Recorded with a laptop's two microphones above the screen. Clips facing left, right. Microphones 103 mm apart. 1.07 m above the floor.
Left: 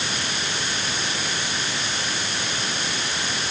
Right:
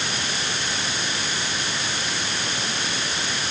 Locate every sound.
Only background noise.